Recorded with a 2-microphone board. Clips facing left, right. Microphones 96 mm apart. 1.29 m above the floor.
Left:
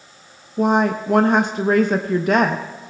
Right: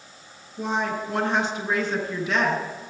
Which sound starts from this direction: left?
A woman speaking, at 0.6 s.